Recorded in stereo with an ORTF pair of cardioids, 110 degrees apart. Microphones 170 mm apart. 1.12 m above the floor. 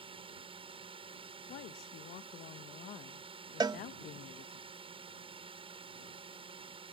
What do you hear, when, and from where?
0.0 s a drone: 35° right
1.5 s a woman speaking: 60° left
3.6 s a cowbell: 25° right